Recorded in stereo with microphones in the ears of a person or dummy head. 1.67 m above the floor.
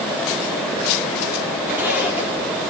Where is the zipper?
5° right (ahead or behind), 3 m.